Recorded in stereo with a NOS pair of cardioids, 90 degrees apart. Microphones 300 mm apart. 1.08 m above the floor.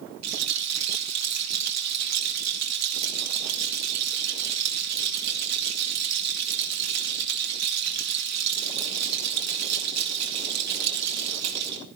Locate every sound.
0.2 s a rattle: 65° right, 3 m